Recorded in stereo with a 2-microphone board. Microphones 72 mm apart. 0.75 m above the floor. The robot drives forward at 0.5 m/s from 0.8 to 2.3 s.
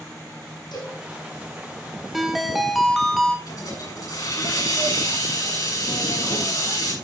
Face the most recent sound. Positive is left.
turn(degrees=55)  # may be behind; listen again after turning